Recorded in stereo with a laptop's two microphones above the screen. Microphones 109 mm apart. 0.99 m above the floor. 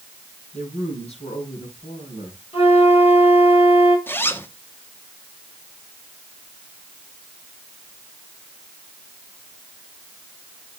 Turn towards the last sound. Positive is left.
turn(degrees=20)  # may be behind; listen again after turning